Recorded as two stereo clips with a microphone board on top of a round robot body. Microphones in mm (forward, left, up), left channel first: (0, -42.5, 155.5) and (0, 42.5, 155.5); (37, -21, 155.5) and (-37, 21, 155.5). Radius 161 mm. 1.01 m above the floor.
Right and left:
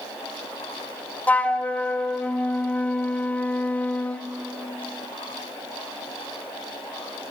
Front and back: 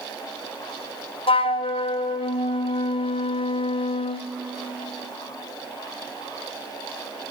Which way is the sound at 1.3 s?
15° right.